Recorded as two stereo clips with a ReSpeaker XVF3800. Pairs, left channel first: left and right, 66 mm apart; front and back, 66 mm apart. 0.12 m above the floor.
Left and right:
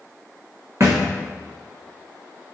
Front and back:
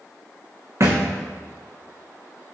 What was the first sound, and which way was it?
A thud, 135° right.